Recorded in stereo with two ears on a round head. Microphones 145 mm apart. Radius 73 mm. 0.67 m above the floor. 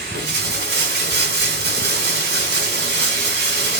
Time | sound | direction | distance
0.0 | running water | 70° right (ahead or behind) | 1.1 m